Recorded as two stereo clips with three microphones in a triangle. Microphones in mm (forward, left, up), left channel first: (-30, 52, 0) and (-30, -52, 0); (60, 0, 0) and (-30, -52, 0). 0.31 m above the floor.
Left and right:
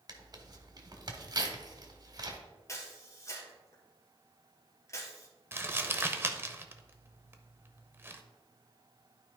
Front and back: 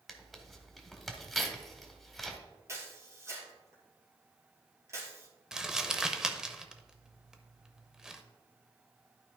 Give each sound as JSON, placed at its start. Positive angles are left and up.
{"t": 0.1, "sound": "tearing paper", "azimuth_deg": -60, "distance_m": 1.2}
{"t": 2.7, "sound": "a camera shutter", "azimuth_deg": 150, "distance_m": 2.5}
{"t": 5.5, "sound": "crumpling", "azimuth_deg": -75, "distance_m": 0.7}